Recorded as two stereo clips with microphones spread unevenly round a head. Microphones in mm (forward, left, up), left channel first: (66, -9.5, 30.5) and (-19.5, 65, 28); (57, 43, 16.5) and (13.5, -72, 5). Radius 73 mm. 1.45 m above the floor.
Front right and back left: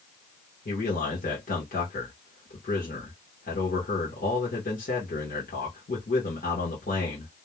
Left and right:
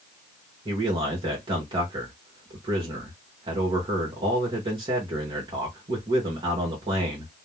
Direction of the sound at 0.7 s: 60° right.